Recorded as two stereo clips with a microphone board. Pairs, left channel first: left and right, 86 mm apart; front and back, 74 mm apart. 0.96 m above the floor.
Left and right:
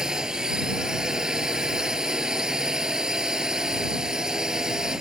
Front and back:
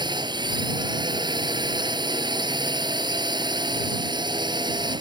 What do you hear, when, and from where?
0.0 s a drone: 175° right